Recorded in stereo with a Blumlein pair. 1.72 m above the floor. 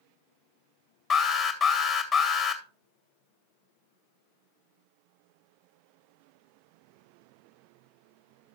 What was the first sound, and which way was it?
An alarm, 15° left.